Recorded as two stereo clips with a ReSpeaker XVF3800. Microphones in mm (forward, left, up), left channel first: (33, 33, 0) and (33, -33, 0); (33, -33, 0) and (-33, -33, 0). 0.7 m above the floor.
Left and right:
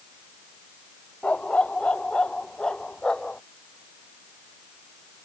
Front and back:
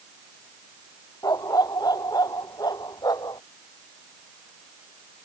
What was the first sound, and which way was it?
A dog barking, 20° left.